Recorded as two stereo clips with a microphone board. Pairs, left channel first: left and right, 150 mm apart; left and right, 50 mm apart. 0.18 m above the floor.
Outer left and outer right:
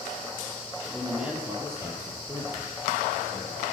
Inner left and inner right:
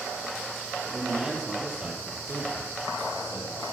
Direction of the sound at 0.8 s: Centre (ahead or behind).